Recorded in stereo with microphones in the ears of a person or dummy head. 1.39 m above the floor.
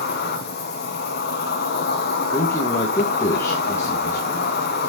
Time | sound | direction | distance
0.0 | an insect | 50° left (ahead or behind) | 2 m
2.3 | a man speaking | 15° left (ahead or behind) | 1.7 m